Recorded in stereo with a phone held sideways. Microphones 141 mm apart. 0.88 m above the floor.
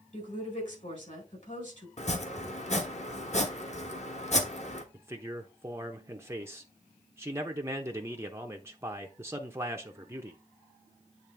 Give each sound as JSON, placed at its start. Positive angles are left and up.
{"t": 0.1, "sound": "a woman speaking", "side_deg": 60, "distance_m": 4.0}
{"t": 2.0, "sound": "chopping", "side_deg": 55, "distance_m": 1.2}
{"t": 4.9, "sound": "a man speaking", "side_deg": -20, "distance_m": 0.8}